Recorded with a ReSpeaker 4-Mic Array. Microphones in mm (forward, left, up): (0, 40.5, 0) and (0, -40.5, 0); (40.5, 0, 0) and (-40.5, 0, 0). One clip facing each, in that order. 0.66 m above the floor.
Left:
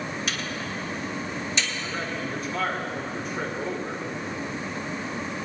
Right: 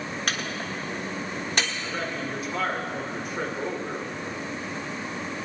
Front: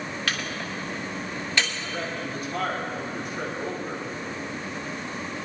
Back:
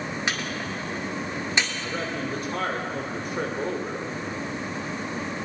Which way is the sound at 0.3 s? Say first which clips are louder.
Right 1 dB, even; 115° right.